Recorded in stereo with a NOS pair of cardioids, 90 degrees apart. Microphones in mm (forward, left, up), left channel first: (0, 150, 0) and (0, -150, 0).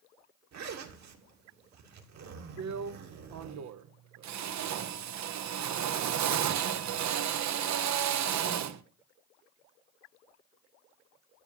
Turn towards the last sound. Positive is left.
turn(degrees=-65)